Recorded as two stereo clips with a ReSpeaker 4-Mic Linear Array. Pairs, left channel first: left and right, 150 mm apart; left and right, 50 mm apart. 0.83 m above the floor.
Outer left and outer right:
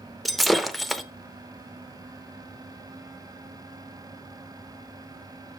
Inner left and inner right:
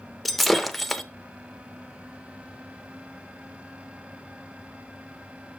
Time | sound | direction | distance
0.2 | breaking glass | centre (ahead or behind) | 0.5 m